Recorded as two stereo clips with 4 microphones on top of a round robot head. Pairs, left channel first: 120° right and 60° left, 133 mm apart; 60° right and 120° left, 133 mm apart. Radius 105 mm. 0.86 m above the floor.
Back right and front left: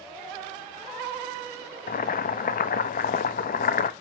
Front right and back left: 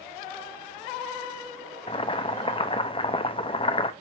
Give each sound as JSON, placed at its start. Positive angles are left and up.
{"t": 1.9, "sound": "boiling", "azimuth_deg": -110, "distance_m": 0.9}